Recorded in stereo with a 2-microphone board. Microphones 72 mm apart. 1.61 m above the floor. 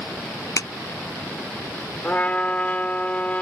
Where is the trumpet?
20° left (ahead or behind).